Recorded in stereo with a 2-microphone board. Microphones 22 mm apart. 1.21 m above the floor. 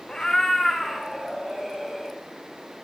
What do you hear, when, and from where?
0.1 s a cat meowing: 30° left (ahead or behind), 0.9 m; by 2.2 s 5° right (ahead or behind), 2.5 m